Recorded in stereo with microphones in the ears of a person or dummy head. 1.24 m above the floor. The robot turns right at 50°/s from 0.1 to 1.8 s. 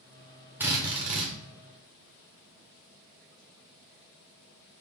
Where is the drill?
170° right, 0.7 m; by 1.3 s 135° right, 0.7 m.